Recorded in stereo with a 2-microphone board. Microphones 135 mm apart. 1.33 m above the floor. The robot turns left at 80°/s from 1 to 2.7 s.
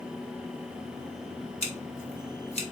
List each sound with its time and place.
1.6 s scissors: 50° left (ahead or behind), 1.3 m